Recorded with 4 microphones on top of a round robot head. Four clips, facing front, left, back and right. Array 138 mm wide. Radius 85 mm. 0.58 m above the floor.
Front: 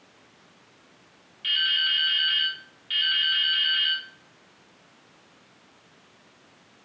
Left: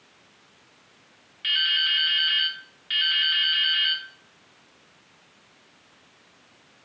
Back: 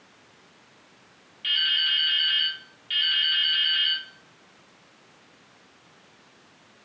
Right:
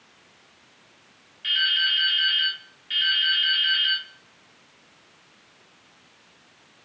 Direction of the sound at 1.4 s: 95° left.